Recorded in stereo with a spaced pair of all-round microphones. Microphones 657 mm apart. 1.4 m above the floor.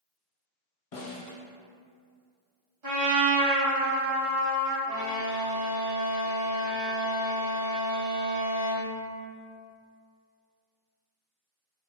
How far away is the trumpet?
About 1.5 m.